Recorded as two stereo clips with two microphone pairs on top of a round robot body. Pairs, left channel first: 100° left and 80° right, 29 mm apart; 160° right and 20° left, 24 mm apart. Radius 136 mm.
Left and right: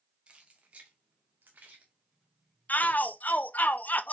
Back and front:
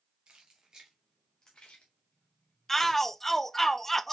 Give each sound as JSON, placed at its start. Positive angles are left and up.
{"t": 0.3, "sound": "keys jangling", "azimuth_deg": -30, "distance_m": 0.8}
{"t": 2.7, "sound": "a shout", "azimuth_deg": 120, "distance_m": 0.5}